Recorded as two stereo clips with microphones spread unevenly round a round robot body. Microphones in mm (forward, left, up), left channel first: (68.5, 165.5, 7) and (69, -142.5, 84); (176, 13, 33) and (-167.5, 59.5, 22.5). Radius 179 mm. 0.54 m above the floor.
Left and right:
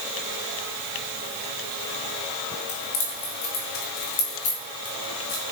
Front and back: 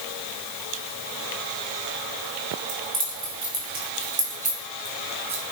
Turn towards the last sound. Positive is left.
turn(degrees=100)